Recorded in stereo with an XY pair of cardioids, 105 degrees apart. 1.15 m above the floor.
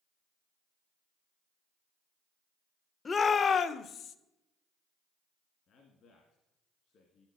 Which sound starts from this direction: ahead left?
A shout, at 3.0 s.